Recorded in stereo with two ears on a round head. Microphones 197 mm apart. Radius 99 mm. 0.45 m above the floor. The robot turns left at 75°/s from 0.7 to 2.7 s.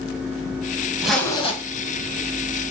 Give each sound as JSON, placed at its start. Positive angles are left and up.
{"t": 1.0, "sound": "a zipper", "azimuth_deg": -175, "distance_m": 2.5}